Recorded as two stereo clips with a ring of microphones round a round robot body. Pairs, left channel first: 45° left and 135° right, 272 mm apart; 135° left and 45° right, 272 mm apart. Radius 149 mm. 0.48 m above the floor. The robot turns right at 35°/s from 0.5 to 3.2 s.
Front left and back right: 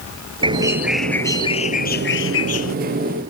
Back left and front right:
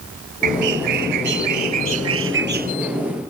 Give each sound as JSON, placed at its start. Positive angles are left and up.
{"t": 0.4, "sound": "a bird", "azimuth_deg": -60}